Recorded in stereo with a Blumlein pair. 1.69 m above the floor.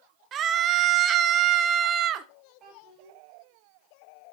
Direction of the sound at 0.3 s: 30° right.